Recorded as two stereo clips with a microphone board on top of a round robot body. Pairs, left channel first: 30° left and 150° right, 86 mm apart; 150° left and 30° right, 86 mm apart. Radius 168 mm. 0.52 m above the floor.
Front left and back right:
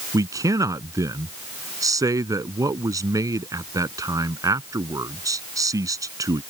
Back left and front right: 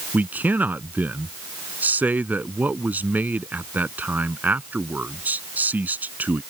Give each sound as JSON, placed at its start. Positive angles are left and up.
{"t": 0.1, "sound": "a man speaking", "azimuth_deg": -100}